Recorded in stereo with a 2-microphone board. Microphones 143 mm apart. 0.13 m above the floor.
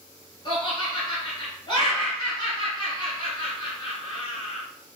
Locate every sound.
0.5 s laughter: 35° left (ahead or behind), 1.5 m